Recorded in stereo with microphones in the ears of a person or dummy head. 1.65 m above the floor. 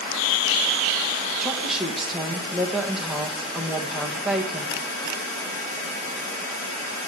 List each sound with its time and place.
1.4 s a woman speaking: centre (ahead or behind), 1.5 m